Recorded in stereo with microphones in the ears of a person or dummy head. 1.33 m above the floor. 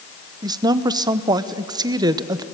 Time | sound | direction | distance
0.4 | a woman speaking | 20° right (ahead or behind) | 0.9 m